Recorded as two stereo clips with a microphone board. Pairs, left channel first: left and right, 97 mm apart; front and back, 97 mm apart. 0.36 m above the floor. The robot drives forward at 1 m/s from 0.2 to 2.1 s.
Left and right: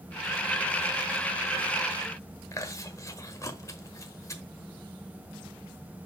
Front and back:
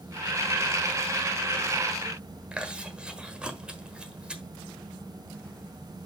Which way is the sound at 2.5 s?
110° left.